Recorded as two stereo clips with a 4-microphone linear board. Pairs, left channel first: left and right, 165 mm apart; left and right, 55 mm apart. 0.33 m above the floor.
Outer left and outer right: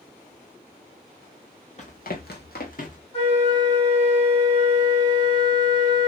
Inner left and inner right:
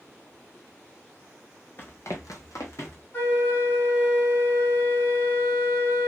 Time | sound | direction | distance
1.8 | running footsteps | 45° left (ahead or behind) | 1.1 m
3.1 | a flute | 35° left (ahead or behind) | 1.8 m